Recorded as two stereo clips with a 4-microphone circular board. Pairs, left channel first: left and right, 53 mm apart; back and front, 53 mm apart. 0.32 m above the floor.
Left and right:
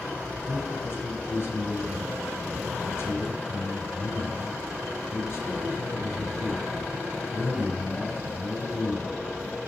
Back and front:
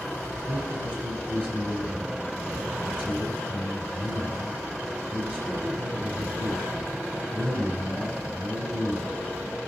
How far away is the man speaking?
About 4 m.